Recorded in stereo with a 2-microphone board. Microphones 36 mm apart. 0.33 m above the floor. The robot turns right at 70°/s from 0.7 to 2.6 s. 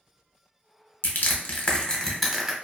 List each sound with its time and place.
1.0 s crushing: 70° left (ahead or behind), 0.7 m; by 2.5 s 15° right (ahead or behind), 0.7 m